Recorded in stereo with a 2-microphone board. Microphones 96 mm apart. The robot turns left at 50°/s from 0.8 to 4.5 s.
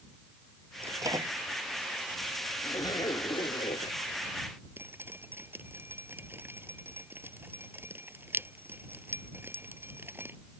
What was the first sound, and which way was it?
A microwave, 25° right (ahead or behind).